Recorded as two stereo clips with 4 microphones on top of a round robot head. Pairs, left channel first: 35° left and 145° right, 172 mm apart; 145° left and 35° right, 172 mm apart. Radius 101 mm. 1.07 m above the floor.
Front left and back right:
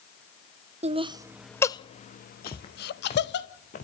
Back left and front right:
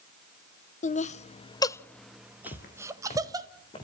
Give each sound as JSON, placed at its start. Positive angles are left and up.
{"t": 0.8, "sound": "laughter", "azimuth_deg": 175, "distance_m": 0.9}
{"t": 2.5, "sound": "footsteps", "azimuth_deg": 100, "distance_m": 2.5}